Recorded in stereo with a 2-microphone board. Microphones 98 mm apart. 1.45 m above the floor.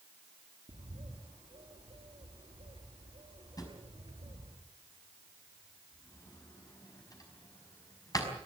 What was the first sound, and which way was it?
A bird, 70° right (ahead or behind).